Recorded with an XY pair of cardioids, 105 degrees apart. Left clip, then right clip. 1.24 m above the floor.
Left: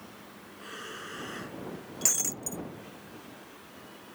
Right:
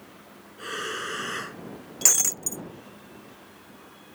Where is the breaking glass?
45° right.